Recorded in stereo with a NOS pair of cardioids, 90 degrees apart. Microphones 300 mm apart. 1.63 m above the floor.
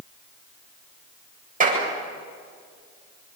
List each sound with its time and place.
1.6 s a clap: 25° right, 8 m